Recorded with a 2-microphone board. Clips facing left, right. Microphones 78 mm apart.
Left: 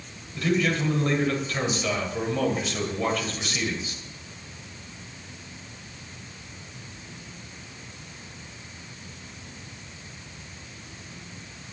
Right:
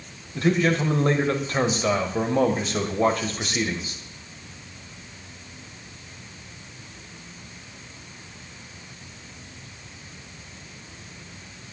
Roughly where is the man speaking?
Right.